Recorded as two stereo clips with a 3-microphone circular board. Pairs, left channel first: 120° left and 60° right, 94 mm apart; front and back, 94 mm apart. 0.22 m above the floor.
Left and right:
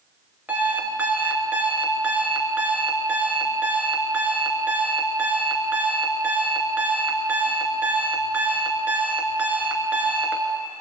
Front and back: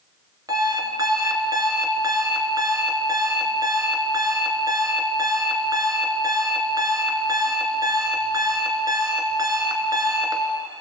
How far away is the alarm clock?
About 1.8 m.